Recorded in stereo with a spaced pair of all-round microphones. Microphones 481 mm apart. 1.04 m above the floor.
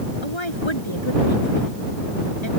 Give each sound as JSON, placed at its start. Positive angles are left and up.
{"t": 0.2, "sound": "a woman speaking", "side_deg": 70}